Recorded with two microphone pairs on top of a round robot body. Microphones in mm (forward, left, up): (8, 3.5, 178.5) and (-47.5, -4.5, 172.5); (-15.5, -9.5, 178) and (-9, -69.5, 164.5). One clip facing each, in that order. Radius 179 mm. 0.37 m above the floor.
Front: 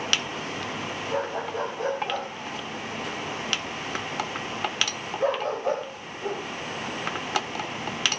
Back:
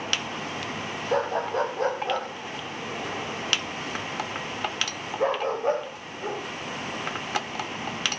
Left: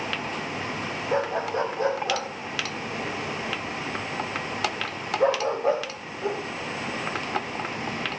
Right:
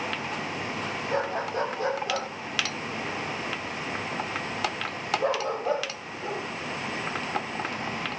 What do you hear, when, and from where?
1.1 s a dog barking: 165° left, 5.5 m; by 6.4 s 130° left, 10 m